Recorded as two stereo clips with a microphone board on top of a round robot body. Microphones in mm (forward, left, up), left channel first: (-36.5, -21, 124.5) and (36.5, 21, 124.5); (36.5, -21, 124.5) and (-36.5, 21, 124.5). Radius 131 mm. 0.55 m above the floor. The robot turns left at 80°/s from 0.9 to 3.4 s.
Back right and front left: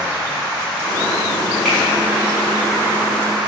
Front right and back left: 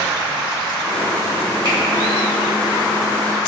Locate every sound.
1.6 s a finger snap: 115° left, 1.7 m; by 1.8 s 105° left, 1.7 m